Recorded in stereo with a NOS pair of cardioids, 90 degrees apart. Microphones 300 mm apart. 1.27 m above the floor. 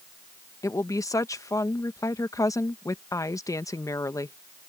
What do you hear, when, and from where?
0.6 s a woman speaking: 10° left